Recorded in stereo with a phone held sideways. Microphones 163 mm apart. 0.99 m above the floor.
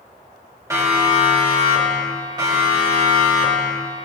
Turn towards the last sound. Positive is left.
turn(degrees=-30)  # may be behind; listen again after turning